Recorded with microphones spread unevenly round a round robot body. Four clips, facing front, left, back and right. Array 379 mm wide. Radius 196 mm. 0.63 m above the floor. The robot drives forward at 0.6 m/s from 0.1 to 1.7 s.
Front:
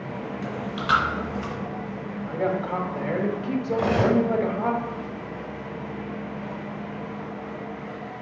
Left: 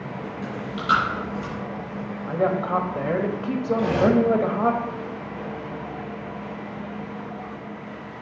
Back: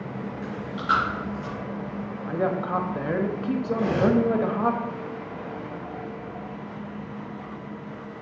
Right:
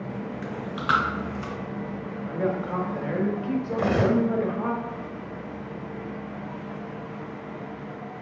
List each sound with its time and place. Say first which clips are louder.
0.4 s chewing: left 2 dB, even; 50° right, 3 m; by 1.5 s 60° right, 3 m
2.3 s a woman speaking: left 5 dB, even; 120° left, 0.9 m
3.7 s cutlery clinking: left 4 dB, front 1 dB; 60° right, 1.9 m